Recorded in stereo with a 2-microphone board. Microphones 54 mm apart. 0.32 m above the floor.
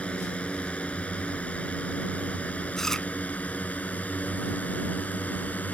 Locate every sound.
0.0 s a drone: 25° left (ahead or behind); by 5.8 s 30° left (ahead or behind)
2.8 s chewing: 10° left (ahead or behind)